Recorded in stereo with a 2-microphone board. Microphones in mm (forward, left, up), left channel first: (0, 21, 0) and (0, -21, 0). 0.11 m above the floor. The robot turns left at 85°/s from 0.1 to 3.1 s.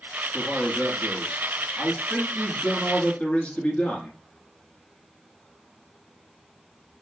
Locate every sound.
0.3 s a man speaking: 10° right, 1.2 m; by 4.1 s 115° left, 1.2 m